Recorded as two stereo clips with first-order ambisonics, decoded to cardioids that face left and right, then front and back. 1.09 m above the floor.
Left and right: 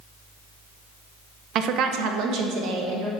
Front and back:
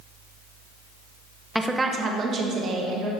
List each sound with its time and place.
1.6 s a woman speaking: 90° right, 0.6 m; by 3.1 s 130° right, 2.0 m